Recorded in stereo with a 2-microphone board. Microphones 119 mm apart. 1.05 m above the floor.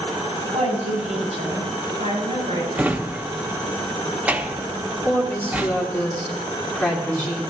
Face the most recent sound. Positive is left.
turn(degrees=15)  # may be behind; listen again after turning